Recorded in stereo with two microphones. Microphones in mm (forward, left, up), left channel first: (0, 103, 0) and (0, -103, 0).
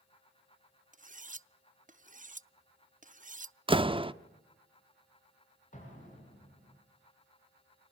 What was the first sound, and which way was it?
Cutlery clinking, 40° right (ahead or behind).